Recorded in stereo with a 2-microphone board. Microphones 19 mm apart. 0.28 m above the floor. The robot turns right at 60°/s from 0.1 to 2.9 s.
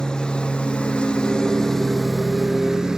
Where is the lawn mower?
55° left; by 3.0 s 135° right.